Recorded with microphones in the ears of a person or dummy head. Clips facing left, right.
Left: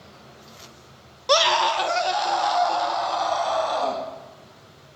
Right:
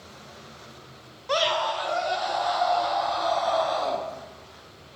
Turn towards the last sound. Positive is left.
turn(degrees=65)  # may be behind; listen again after turning